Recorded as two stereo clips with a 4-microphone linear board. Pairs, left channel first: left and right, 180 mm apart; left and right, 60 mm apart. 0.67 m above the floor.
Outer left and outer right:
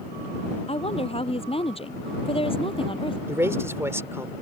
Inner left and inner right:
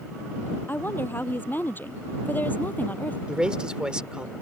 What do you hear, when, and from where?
0.7 s a woman speaking: 35° left (ahead or behind); by 3.2 s 30° left (ahead or behind)
3.3 s a man speaking: 15° right (ahead or behind)